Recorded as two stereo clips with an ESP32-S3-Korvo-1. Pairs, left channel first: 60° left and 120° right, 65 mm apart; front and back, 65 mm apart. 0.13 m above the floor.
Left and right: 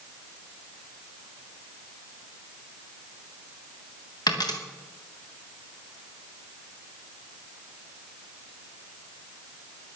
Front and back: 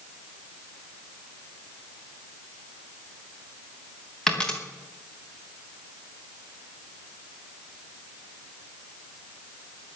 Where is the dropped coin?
80° left, 3.5 m.